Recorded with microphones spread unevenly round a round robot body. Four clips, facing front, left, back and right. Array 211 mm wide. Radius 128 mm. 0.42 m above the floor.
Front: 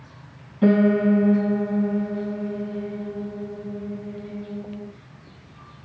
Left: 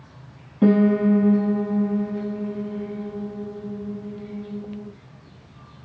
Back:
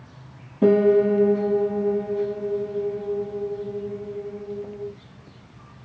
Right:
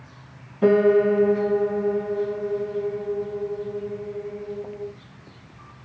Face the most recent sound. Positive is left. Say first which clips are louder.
# right 1 dB, back 2 dB
turn(degrees=120)